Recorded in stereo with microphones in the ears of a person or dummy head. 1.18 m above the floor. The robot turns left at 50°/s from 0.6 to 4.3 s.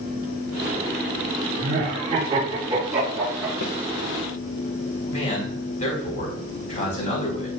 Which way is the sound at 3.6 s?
45° left (ahead or behind).